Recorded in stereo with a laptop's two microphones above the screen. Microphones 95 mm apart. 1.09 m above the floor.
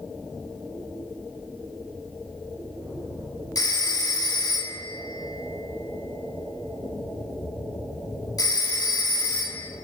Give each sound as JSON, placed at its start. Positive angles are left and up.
{"t": 3.5, "sound": "a phone ringing", "side_deg": 40, "distance_m": 1.3}